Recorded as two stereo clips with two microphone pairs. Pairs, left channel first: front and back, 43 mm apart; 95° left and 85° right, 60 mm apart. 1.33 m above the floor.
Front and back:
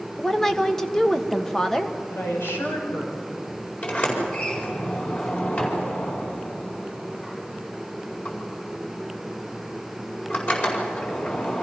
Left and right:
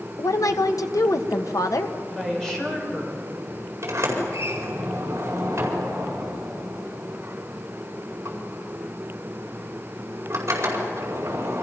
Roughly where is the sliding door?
Ahead right.